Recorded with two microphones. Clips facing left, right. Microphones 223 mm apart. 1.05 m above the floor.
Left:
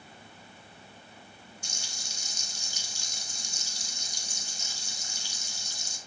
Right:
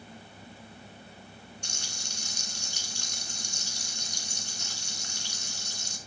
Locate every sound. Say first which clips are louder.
1.6 s frying: right 3 dB; 65° right (ahead or behind), 2.5 m